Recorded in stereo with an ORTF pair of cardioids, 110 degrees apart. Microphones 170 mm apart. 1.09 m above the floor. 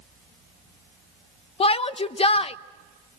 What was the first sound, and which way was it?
A shout, 35° left.